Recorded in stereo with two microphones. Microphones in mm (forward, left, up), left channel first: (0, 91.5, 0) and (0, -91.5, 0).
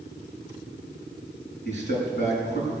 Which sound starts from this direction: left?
A man speaking, at 1.6 s.